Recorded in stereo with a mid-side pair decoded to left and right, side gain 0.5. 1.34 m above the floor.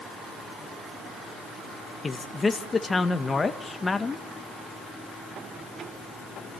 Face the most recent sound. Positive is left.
turn(degrees=25)